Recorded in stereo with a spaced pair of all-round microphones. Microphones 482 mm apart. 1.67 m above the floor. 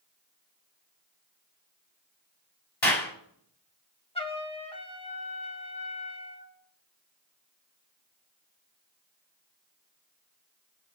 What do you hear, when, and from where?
2.8 s a clap: 65° left (ahead or behind), 3 m
4.2 s a trumpet: 10° left (ahead or behind), 1.4 m